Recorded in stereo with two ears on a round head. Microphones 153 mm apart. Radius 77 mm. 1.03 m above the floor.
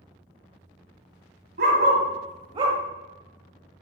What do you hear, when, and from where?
1.6 s a dog barking: 60° right (ahead or behind), 1.5 m; by 2.8 s 20° right (ahead or behind), 1.0 m